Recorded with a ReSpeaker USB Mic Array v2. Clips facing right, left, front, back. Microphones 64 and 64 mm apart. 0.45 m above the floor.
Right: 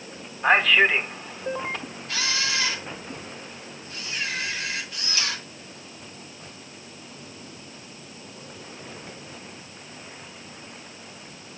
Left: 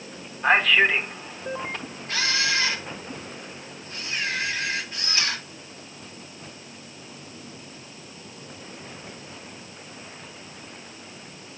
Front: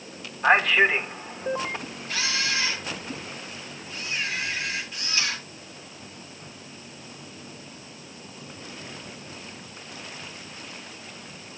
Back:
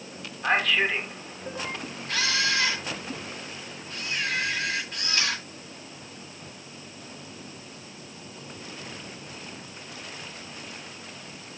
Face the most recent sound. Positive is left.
turn(degrees=140)